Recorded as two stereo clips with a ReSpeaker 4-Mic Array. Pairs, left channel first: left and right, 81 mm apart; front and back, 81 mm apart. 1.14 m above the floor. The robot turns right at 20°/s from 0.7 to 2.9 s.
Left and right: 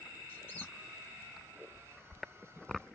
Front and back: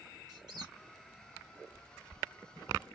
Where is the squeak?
155° left, 1.9 m.